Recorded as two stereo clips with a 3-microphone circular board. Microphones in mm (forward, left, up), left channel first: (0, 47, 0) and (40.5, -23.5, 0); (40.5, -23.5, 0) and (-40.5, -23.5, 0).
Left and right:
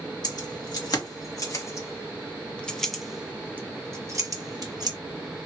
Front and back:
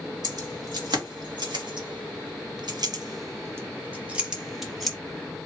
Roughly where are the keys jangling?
Behind left.